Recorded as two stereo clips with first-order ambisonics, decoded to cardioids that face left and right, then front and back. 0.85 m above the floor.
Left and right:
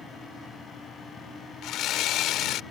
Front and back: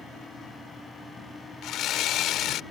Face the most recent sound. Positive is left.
turn(degrees=45)